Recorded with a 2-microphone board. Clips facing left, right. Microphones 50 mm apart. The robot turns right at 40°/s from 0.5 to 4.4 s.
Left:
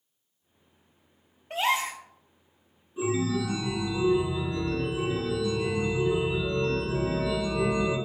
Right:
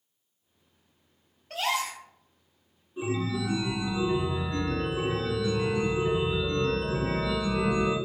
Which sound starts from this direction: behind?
A chime, at 3.0 s.